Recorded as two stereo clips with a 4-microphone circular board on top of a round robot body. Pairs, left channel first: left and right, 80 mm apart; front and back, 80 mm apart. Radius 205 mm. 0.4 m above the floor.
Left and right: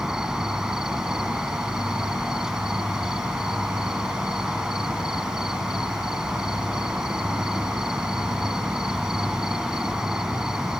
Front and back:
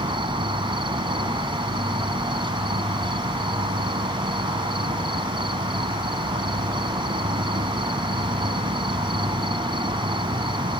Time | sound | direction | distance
0.0 | an insect | 175° right | ?